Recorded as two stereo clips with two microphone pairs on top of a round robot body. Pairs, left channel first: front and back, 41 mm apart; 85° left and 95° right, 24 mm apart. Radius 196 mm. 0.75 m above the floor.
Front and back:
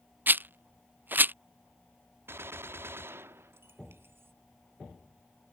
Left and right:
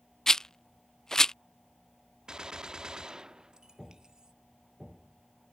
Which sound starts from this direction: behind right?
A gunshot, at 2.3 s.